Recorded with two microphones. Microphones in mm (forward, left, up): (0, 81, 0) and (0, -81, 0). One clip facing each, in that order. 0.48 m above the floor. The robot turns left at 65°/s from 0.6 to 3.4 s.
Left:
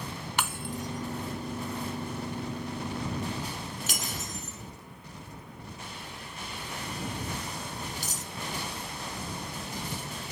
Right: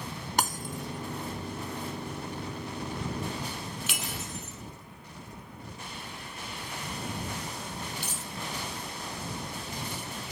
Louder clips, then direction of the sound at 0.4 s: Right 2 dB; 40° right (ahead or behind).